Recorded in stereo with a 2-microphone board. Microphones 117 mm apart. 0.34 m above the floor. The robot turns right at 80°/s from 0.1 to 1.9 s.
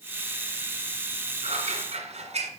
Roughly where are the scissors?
Right.